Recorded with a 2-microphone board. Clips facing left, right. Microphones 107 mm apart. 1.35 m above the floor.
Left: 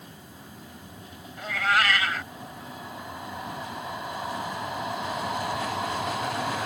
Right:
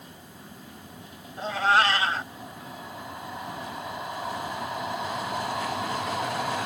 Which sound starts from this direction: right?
A cat meowing, at 1.4 s.